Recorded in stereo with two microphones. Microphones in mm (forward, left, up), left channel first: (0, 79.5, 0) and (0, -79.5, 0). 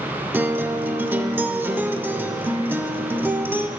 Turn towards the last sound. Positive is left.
turn(degrees=-15)  # may be behind; listen again after turning